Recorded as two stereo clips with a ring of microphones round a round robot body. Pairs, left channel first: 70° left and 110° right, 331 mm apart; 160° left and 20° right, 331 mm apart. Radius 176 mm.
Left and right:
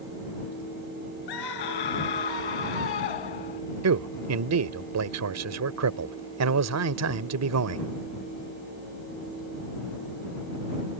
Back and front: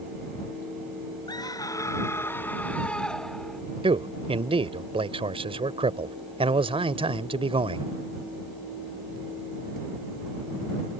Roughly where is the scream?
Left.